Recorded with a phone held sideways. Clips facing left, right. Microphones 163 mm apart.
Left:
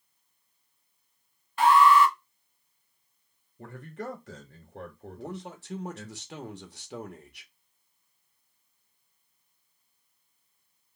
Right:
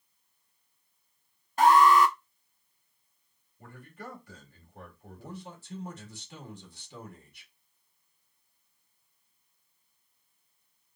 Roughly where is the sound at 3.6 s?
Left.